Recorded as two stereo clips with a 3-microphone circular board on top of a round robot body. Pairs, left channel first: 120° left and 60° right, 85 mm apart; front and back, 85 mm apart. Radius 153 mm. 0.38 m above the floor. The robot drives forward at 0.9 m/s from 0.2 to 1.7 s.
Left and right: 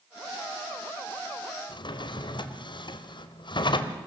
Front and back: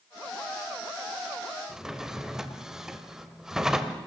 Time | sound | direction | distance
1.7 | a drawer | 95° left | 1.5 m